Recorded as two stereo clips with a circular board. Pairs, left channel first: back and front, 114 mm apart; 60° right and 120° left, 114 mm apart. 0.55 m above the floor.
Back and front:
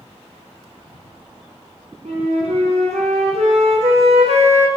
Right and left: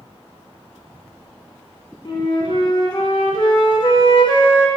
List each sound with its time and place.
2.0 s a flute: 10° right, 0.6 m